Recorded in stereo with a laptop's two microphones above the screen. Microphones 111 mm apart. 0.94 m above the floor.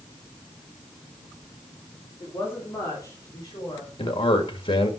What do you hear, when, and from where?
2.2 s a woman speaking: 15° left (ahead or behind), 3 m; by 3.9 s 40° left (ahead or behind), 3.5 m
4.0 s a man speaking: 45° left (ahead or behind), 1.7 m